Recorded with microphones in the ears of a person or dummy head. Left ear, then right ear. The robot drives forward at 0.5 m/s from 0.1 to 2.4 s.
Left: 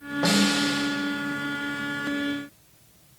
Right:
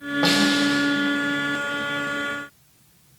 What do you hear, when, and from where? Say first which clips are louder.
0.2 s a snare drum: right 3 dB; 25° right (ahead or behind), 0.7 m; by 0.8 s 15° right (ahead or behind), 1.0 m